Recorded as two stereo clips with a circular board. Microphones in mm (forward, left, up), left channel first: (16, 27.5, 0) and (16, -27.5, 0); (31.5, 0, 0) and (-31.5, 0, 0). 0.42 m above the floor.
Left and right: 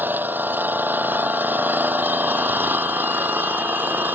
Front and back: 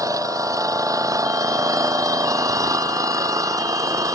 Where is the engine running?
145° right.